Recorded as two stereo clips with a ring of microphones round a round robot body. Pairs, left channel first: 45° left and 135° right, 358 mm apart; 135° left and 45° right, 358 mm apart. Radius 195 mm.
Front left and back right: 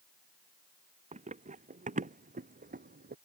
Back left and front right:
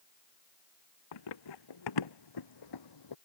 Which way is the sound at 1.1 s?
155° left.